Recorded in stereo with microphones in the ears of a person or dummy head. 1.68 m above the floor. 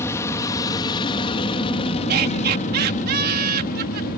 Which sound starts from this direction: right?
Laughter, at 2.1 s.